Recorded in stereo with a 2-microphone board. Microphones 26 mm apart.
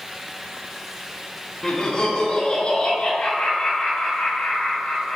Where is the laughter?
25° left (ahead or behind), 1.3 m; by 5.2 s 65° left (ahead or behind), 3.5 m.